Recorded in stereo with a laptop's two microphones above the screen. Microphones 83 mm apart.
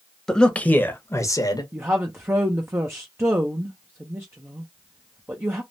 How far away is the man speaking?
About 0.9 m.